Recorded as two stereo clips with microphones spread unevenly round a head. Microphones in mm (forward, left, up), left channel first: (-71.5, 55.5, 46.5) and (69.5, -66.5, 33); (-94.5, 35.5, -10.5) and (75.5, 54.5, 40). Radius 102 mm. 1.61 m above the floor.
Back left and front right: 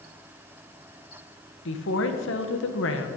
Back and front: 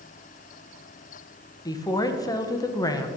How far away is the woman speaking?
About 1.3 m.